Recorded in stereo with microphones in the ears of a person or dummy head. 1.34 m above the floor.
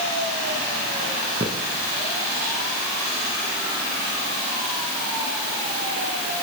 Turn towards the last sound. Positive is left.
turn(degrees=-20)  # may be behind; listen again after turning